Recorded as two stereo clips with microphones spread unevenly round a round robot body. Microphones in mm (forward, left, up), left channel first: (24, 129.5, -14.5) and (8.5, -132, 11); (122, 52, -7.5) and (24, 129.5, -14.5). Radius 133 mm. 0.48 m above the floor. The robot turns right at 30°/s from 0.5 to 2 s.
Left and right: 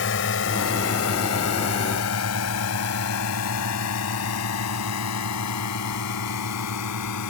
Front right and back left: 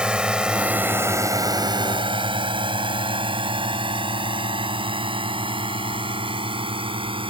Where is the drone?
60° left; by 7.3 s 100° left.